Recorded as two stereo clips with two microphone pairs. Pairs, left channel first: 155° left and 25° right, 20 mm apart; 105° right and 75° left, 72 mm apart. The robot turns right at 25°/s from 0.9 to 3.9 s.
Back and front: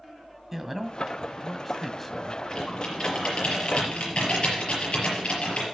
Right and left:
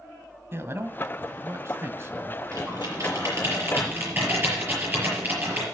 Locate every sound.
0.5 s a man speaking: 55° left, 1.3 m; by 2.4 s 95° left, 1.3 m
2.5 s typing on a keyboard: 100° left, 5.5 m; by 5.7 s 135° left, 5.5 m